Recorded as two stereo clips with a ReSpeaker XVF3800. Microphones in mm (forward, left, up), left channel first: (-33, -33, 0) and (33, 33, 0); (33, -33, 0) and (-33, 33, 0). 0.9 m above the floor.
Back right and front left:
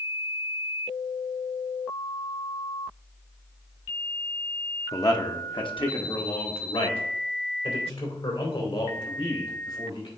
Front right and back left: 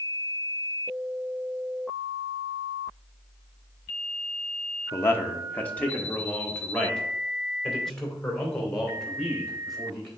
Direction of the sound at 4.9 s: 95° right.